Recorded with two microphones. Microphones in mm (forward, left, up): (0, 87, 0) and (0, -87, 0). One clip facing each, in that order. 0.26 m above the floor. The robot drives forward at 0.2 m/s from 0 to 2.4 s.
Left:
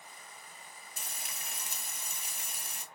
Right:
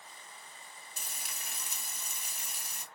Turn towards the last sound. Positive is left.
turn(degrees=55)  # may be behind; listen again after turning